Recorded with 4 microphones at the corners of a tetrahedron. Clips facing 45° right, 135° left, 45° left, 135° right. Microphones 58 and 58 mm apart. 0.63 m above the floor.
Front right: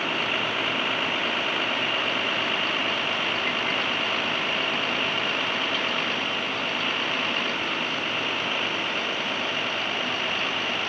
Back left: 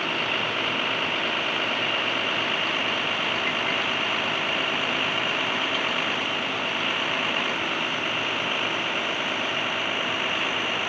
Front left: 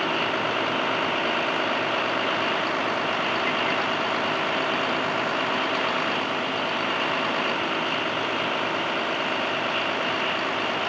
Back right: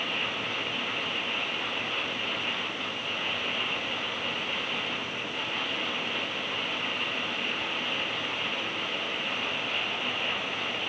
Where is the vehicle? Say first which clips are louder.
Even, front left 8 dB; 45° left; by 10.9 s 55° left.